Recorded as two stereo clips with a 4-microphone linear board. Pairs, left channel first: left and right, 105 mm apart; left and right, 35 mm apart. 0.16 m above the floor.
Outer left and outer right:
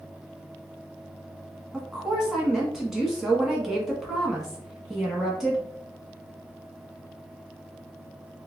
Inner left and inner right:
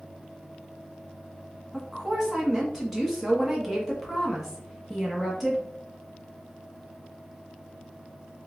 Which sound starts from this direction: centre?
A woman speaking, at 1.7 s.